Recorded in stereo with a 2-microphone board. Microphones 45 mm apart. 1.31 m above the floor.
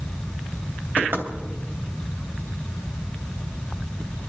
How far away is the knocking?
About 3 m.